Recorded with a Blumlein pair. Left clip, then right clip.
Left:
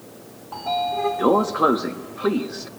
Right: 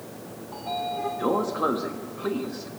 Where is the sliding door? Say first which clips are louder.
Left 6 dB; 20° left, 1.0 m.